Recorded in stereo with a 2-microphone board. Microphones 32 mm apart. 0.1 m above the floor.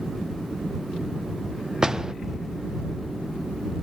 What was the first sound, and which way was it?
A door slam, 20° right (ahead or behind).